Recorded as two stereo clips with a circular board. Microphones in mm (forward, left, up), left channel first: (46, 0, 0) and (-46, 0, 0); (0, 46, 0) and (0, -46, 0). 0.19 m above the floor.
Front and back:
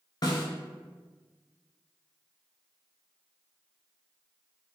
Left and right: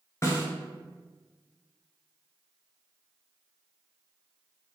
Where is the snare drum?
35° left, 0.7 m.